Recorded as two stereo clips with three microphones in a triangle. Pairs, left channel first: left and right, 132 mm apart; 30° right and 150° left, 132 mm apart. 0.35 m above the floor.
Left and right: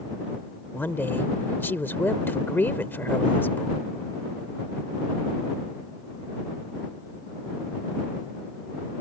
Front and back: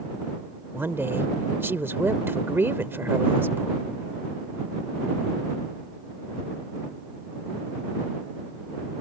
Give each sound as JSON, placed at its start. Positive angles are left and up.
{"t": 0.7, "sound": "a woman speaking", "azimuth_deg": 125}